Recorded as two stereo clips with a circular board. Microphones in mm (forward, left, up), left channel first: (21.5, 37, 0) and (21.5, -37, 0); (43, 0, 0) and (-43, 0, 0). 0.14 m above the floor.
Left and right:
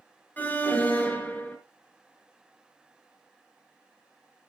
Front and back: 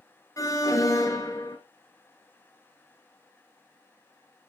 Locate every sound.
0.4 s an alarm: 30° left, 2.5 m